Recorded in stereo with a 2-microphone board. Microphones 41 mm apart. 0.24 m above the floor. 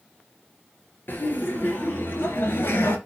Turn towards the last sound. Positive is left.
turn(degrees=70)  # may be behind; listen again after turning